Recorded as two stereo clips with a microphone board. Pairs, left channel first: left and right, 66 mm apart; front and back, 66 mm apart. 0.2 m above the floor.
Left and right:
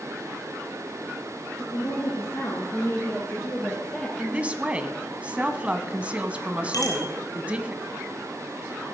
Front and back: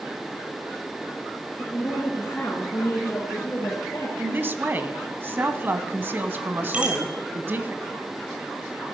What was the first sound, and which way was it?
A woman speaking, 70° left.